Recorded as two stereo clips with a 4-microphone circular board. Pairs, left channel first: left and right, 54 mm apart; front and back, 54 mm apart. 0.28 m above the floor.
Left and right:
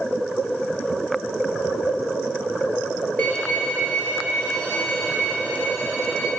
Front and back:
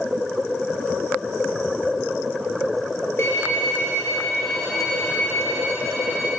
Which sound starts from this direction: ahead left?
A violin, at 3.2 s.